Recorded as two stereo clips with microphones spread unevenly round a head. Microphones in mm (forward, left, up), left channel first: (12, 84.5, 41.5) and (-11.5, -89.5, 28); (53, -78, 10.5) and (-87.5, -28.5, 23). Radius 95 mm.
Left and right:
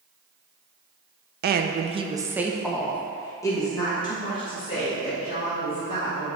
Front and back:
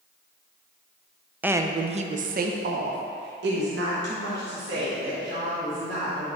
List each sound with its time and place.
1.4 s a woman speaking: 120° right, 0.6 m; by 6.4 s 140° left, 2.5 m